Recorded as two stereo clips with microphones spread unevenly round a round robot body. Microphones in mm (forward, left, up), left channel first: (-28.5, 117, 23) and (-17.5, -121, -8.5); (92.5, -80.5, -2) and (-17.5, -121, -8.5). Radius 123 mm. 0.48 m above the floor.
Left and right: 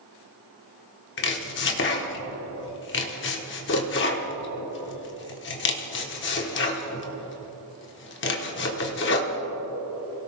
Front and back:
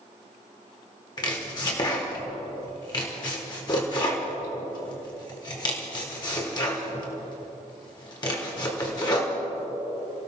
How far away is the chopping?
About 1.4 m.